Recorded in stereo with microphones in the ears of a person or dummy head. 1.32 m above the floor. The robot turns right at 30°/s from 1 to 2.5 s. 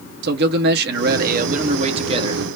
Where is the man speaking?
70° right, 1.1 m; by 2.4 s 30° right, 1.1 m.